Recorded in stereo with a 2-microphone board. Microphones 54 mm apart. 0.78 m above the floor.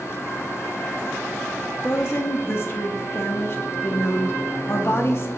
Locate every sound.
1.8 s a woman speaking: 50° left (ahead or behind), 0.6 m